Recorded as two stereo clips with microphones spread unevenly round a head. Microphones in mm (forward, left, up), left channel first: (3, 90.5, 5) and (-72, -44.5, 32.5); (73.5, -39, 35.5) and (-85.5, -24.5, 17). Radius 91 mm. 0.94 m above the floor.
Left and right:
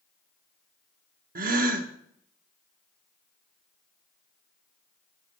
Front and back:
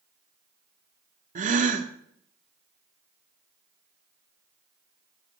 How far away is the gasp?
About 1.3 m.